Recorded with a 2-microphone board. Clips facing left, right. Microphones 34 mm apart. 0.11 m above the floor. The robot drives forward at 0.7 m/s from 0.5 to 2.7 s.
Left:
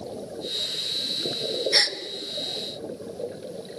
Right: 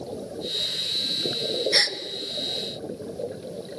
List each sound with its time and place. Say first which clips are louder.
1.7 s a gasp: left 1 dB; 5° right (ahead or behind), 0.9 m